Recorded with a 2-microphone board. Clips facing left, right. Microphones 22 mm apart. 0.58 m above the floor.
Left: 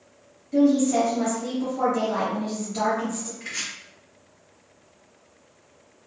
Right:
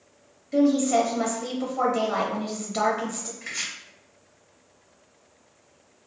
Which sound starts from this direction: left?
Chopping, at 3.4 s.